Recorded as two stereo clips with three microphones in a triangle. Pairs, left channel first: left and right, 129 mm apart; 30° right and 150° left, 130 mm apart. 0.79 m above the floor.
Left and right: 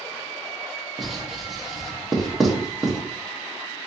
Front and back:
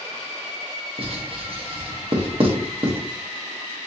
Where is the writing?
Straight behind, 1.0 m.